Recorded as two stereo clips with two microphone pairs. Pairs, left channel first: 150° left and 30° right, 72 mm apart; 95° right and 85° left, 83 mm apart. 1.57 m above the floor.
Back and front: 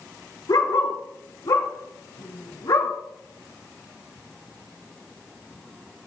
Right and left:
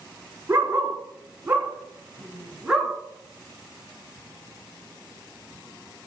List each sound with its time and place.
0.5 s a dog barking: 140° left, 4.5 m; by 2.9 s 170° left, 4.5 m